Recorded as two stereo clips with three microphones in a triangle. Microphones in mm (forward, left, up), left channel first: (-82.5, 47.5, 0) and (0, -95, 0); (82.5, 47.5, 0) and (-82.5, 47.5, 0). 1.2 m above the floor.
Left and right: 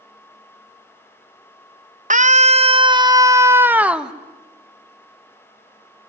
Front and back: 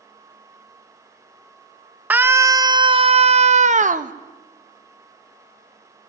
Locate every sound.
2.1 s a scream: 100° right, 1.1 m; by 4.1 s 145° right, 1.5 m